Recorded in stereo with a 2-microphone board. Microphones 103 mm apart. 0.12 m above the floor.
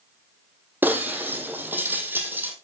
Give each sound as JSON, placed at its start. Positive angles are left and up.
{"t": 0.8, "sound": "breaking glass", "side_deg": -20, "distance_m": 1.9}